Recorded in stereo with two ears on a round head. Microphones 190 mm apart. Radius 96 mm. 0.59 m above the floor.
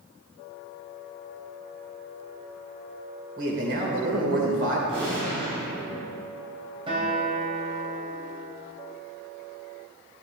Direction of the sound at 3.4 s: 60° right (ahead or behind).